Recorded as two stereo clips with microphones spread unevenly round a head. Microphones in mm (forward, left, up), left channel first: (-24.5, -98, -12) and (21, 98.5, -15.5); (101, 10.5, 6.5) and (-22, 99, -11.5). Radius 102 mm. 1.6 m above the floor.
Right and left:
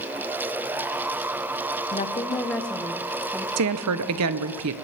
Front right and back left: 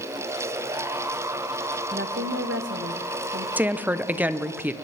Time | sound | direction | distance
1.9 | a woman speaking | 155° right | 0.7 m
3.6 | a woman speaking | 65° left | 0.9 m